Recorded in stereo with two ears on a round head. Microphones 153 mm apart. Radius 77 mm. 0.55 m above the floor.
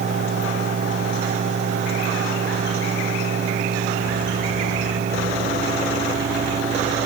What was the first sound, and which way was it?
Only background noise.